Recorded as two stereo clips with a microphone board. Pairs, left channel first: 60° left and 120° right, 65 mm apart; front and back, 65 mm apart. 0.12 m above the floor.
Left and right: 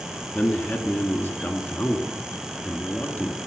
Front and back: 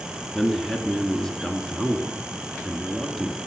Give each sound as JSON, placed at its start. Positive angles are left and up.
{"t": 0.3, "sound": "a man speaking", "azimuth_deg": 75, "distance_m": 1.4}